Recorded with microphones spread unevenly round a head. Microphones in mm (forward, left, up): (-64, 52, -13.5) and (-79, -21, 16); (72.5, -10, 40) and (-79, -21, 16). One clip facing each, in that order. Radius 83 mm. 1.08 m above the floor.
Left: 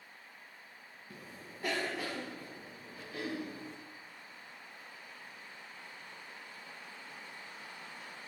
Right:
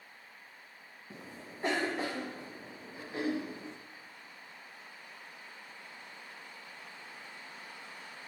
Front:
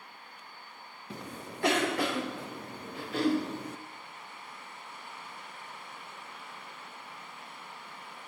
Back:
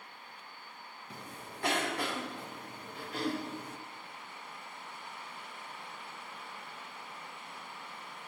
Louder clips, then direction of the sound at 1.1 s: Right 3 dB, front 6 dB; 20° right.